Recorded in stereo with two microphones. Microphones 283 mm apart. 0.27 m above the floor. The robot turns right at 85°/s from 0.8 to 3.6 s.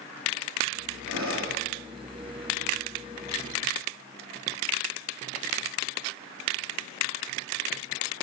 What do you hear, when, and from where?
1.1 s breathing: 120° right, 3 m; by 1.6 s 70° right, 3 m